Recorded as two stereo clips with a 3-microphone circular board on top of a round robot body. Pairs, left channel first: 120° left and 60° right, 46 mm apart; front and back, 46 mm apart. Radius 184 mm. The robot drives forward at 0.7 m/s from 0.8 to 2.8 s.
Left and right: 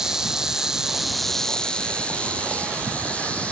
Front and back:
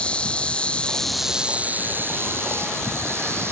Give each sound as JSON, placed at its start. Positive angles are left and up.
{"t": 0.0, "sound": "an insect", "azimuth_deg": 0, "distance_m": 0.8}